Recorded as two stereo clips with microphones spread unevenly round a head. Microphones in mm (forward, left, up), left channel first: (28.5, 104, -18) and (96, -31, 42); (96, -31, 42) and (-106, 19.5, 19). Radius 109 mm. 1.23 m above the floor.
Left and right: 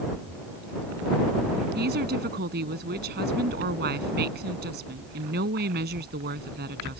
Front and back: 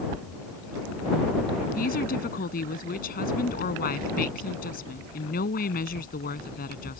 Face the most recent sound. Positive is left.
turn(degrees=-65)